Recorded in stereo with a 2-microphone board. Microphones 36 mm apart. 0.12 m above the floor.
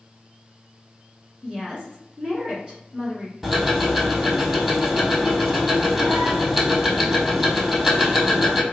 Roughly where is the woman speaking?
Right.